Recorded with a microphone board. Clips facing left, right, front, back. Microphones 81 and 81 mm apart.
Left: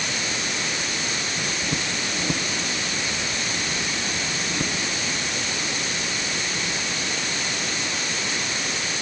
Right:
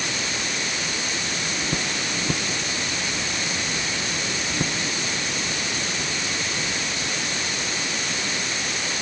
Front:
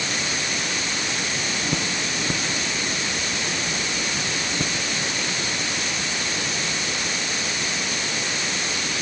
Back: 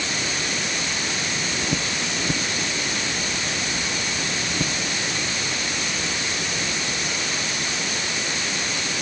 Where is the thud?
I don't hear a thud.